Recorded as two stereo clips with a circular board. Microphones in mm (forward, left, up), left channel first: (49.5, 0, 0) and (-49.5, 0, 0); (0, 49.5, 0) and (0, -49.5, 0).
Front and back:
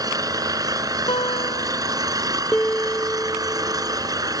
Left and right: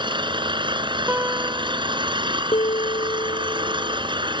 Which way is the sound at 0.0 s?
130° right.